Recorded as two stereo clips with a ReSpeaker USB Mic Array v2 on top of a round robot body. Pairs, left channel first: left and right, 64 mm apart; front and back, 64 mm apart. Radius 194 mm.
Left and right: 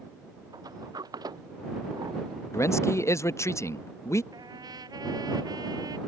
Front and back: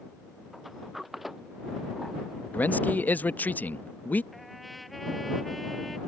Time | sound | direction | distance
0.5 | a sliding door | 95° right | ?
2.5 | a man speaking | 60° left | ?
4.3 | a trumpet | 90° right | ?